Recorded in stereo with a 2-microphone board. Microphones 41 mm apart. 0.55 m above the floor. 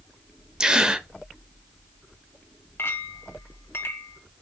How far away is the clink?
About 1.9 m.